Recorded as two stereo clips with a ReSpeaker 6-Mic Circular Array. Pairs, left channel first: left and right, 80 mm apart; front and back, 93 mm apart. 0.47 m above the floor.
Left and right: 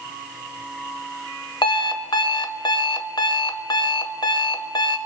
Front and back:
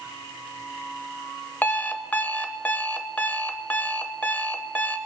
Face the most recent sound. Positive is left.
turn(degrees=70)